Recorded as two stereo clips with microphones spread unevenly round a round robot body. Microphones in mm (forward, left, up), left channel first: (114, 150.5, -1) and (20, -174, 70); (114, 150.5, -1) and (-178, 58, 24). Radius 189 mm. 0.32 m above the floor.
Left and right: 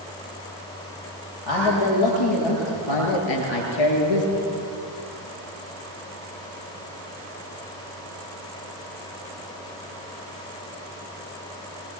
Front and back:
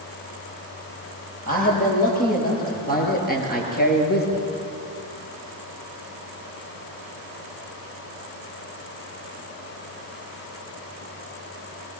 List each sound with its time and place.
1.5 s a man speaking: 80° left, 9 m; by 4.4 s 75° left, 6 m